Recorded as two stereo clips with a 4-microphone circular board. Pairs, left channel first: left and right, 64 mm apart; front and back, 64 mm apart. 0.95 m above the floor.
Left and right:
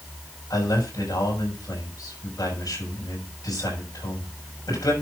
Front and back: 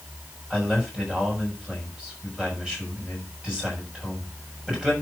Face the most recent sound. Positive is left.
turn(degrees=105)